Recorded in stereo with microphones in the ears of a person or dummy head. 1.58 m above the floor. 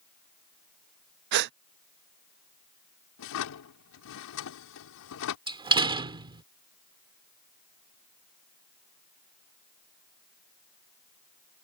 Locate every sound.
1.3 s a gasp: 50° right (ahead or behind)
3.2 s a drawer: 70° left (ahead or behind)
5.5 s a door slam: 20° right (ahead or behind)